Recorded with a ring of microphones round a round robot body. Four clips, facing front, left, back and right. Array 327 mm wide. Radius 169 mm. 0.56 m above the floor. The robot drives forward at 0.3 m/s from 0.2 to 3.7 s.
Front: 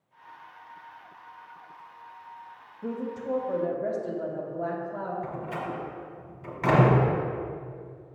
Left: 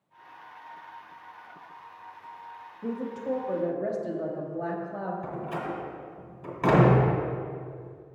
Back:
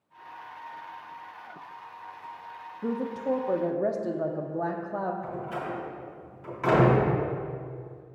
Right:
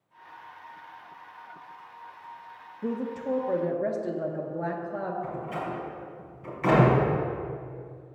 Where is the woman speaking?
145° right, 0.7 m; by 5.1 s 160° right, 0.8 m.